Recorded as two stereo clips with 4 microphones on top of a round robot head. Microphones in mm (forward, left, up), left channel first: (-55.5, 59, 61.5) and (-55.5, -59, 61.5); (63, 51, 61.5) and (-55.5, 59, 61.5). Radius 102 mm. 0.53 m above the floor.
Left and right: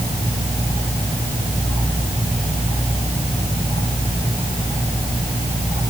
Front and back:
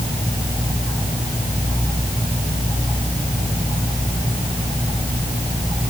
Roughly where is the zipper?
I don't hear a zipper.